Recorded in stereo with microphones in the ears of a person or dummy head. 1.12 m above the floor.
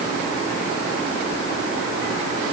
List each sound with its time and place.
Only background noise.